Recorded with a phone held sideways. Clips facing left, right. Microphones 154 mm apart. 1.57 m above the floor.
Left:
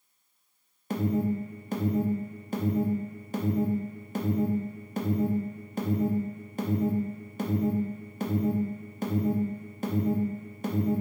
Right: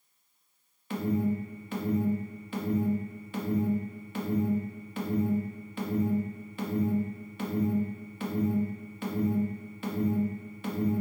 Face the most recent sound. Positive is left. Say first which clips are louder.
# left 1 dB
turn(degrees=40)  # may be behind; listen again after turning